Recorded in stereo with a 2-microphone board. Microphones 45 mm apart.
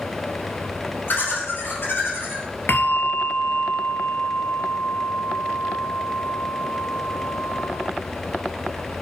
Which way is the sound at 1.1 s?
50° left (ahead or behind).